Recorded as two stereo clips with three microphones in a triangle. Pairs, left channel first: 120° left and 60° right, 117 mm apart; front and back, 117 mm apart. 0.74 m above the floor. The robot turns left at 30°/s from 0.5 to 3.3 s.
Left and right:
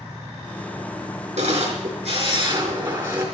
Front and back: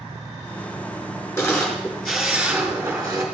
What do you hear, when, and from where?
1.4 s a camera shutter: 65° right, 3.5 m; by 3.2 s 125° right, 3.5 m